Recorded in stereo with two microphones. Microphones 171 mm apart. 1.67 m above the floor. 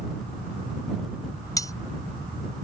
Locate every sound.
1.6 s cutlery clinking: 20° left (ahead or behind)